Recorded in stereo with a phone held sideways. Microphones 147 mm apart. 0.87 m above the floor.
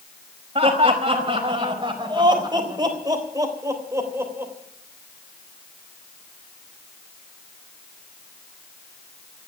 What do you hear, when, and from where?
0.6 s laughter: 40° right (ahead or behind), 5 m; by 4.5 s 15° right (ahead or behind), 3.5 m